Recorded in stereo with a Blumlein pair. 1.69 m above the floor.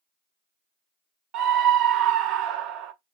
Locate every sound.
1.3 s a scream: 35° right, 0.7 m